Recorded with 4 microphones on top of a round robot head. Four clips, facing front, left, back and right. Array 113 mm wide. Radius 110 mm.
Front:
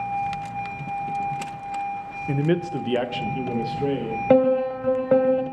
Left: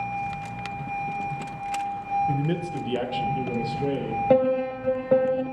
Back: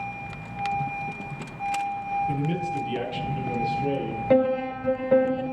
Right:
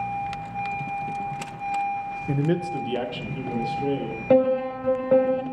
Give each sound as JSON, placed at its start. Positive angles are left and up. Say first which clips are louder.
{"t": 2.3, "sound": "a man speaking", "louder": "right 2 dB, front 4 dB", "azimuth_deg": -35, "distance_m": 0.6}
{"t": 4.3, "sound": "a piano", "louder": "right 2 dB, front 4 dB", "azimuth_deg": 0, "distance_m": 0.9}